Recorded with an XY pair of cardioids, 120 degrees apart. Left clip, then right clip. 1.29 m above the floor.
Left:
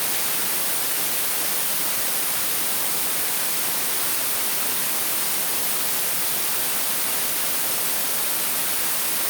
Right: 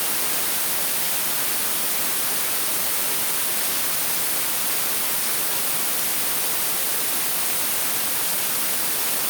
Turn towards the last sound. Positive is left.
No sound to turn to.